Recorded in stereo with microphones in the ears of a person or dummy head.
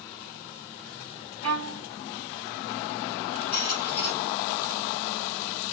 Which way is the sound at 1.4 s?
80° right.